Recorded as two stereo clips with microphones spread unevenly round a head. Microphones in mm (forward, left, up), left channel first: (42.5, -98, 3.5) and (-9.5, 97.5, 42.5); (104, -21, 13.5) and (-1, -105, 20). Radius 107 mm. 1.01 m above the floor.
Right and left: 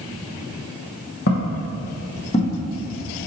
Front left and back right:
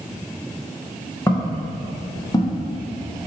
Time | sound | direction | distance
1.3 | footsteps | 30° right | 2 m